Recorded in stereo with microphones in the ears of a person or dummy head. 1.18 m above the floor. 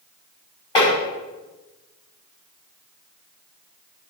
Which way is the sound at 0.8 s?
30° left (ahead or behind).